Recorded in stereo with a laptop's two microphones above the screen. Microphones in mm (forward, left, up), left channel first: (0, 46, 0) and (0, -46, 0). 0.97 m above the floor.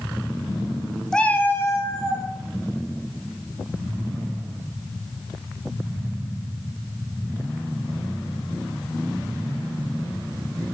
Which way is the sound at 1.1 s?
5° left (ahead or behind).